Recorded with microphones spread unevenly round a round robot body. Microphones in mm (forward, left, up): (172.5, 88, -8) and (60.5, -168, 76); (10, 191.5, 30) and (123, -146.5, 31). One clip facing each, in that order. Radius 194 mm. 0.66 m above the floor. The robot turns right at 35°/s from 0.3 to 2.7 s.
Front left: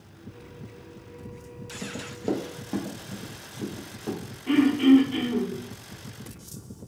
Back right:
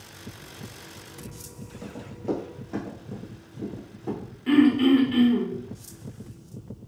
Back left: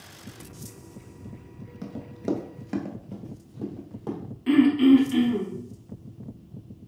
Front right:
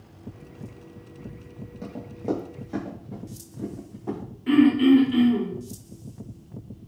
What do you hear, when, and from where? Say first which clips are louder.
1.8 s running footsteps: front left 1 dB, even; 85° left, 0.6 m; by 4.2 s 120° left, 1.7 m
4.5 s throat clearing: even, even; 175° left, 0.8 m